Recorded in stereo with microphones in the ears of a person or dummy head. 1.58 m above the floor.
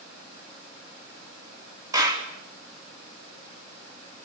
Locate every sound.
1.9 s a clap: 20° right (ahead or behind), 4 m